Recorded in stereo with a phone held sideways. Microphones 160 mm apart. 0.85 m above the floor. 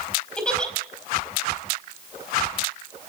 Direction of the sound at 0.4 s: 5° left (ahead or behind).